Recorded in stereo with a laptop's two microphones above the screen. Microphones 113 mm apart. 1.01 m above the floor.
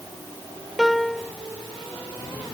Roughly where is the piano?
Centre.